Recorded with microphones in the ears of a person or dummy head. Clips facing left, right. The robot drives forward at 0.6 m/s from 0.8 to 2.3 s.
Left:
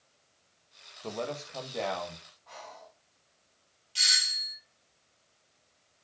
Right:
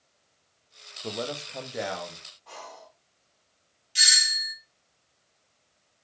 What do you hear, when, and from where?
1.0 s a man speaking: 15° right (ahead or behind), 1.4 m; by 2.2 s 10° right (ahead or behind), 2 m
2.5 s breathing: 55° right (ahead or behind), 2 m
4.0 s a doorbell: 15° right (ahead or behind), 1.3 m